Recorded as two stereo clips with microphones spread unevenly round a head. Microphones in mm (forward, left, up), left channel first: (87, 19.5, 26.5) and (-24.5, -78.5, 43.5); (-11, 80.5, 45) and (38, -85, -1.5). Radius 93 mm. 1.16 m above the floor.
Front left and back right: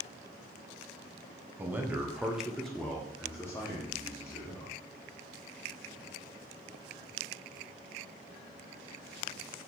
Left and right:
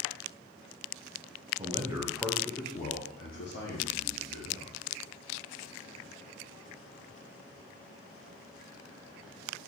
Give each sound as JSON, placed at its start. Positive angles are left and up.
{"t": 1.6, "sound": "a man speaking", "azimuth_deg": -60, "distance_m": 0.8}